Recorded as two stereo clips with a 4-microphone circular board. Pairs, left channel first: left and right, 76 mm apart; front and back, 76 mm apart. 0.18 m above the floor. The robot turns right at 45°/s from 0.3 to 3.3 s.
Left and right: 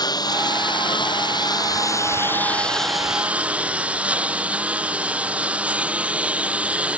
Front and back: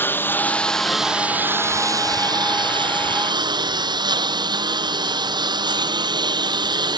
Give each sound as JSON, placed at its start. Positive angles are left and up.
{"t": 0.0, "sound": "a lawn mower", "azimuth_deg": 60}